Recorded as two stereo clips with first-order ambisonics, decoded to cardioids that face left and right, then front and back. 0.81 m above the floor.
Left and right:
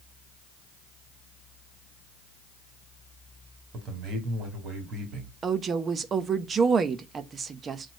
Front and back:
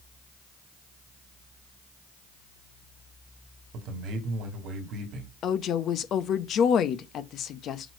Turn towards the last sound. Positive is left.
turn(degrees=-35)